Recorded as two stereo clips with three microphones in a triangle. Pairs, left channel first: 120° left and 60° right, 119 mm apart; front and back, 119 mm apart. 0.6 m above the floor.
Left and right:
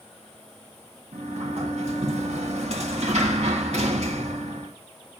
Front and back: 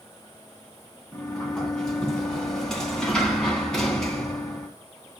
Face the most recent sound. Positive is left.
turn(degrees=-85)